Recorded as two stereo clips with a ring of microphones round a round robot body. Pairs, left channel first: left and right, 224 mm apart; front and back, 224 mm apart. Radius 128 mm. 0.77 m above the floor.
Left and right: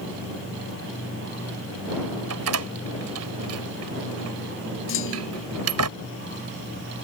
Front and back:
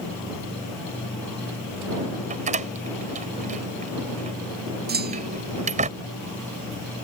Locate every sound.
2.3 s a door slam: 115° right
4.9 s a clunk: 135° left